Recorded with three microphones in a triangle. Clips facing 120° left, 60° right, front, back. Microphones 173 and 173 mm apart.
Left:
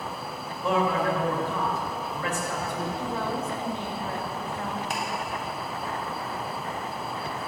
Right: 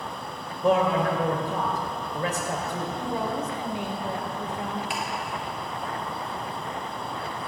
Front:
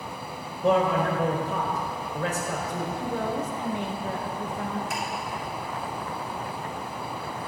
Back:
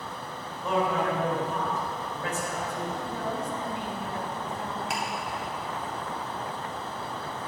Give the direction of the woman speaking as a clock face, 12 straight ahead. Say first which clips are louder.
Right 1 dB, front 4 dB; 12 o'clock.